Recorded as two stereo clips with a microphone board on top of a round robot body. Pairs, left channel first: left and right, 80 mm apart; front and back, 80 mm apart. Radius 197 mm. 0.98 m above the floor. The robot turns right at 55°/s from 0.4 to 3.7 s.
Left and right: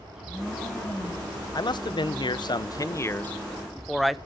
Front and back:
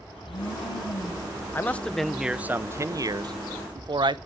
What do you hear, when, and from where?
0.1 s a blender: 10° right, 3 m; by 1.4 s 50° left, 3 m
1.6 s a man speaking: 60° left, 0.9 m; by 4.2 s straight behind, 0.9 m